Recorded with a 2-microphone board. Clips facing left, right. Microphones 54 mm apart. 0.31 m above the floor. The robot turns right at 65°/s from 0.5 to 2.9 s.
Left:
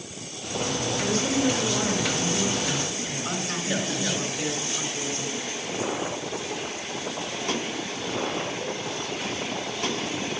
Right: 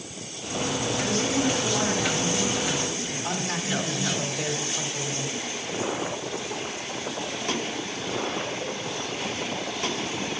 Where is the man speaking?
45° right (ahead or behind), 2 m.